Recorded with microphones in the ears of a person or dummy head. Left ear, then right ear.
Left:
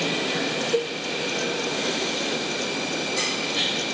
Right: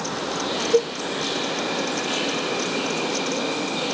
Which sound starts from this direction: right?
A cowbell, at 0.7 s.